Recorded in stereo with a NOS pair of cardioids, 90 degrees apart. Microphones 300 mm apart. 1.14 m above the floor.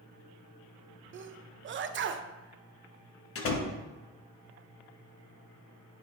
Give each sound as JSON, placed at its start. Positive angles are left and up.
{"t": 1.1, "sound": "a sneeze", "azimuth_deg": -40, "distance_m": 0.6}
{"t": 3.4, "sound": "a door slam", "azimuth_deg": 50, "distance_m": 1.0}